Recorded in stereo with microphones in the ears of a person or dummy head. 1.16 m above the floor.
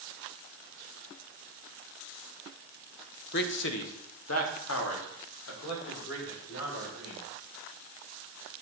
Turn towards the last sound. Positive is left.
turn(degrees=75)  # may be behind; listen again after turning